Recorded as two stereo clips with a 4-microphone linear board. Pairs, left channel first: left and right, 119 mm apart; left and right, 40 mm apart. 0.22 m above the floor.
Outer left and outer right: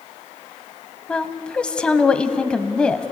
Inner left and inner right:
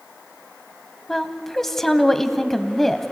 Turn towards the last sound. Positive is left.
turn(degrees=10)  # may be behind; listen again after turning